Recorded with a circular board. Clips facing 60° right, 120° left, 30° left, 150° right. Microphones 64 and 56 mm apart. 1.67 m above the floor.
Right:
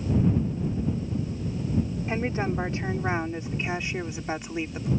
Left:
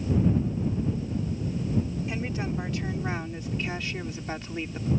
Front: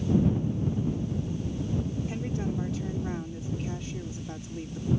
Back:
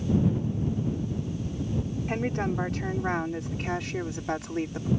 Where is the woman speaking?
115° right; by 4.9 s 140° right.